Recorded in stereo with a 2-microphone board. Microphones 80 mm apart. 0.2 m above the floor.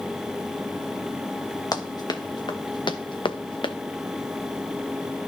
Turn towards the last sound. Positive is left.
turn(degrees=70)  # may be behind; listen again after turning